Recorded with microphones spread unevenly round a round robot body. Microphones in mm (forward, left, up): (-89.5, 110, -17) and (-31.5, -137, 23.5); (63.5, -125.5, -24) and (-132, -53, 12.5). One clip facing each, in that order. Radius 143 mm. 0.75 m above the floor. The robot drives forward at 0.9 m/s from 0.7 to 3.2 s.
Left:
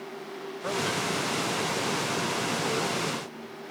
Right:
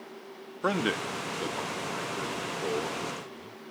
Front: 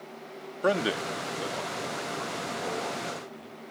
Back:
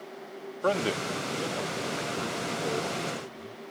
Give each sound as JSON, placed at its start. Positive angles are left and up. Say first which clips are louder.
{"t": 0.6, "sound": "a man speaking", "louder": "right 2 dB, front 1 dB", "azimuth_deg": -90}